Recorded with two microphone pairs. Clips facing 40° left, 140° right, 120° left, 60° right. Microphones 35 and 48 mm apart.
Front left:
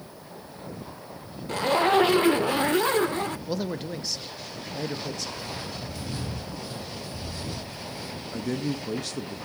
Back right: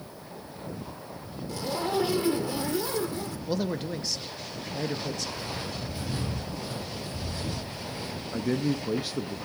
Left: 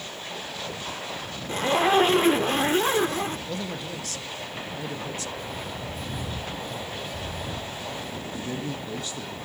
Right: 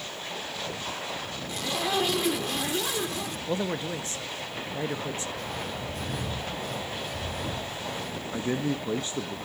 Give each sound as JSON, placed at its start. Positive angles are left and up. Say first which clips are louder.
{"t": 1.5, "sound": "a zipper", "louder": "front left 8 dB, left 8 dB", "azimuth_deg": 70, "distance_m": 0.5}
{"t": 3.5, "sound": "a man speaking", "louder": "back right 1 dB, right 3 dB", "azimuth_deg": -50, "distance_m": 0.8}
{"t": 5.3, "sound": "footsteps", "louder": "even, even", "azimuth_deg": -60, "distance_m": 6.0}
{"t": 8.3, "sound": "a man speaking", "louder": "back right 2 dB, right 6 dB", "azimuth_deg": -80, "distance_m": 0.6}